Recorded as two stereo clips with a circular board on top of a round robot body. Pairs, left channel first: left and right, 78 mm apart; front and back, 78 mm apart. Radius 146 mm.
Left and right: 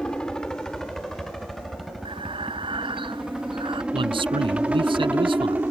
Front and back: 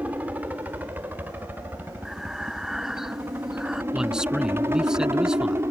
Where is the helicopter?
150° left; by 5.7 s 145° right.